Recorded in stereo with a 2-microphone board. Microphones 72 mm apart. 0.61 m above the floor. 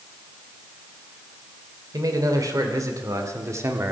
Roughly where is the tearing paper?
No tearing paper in this recording.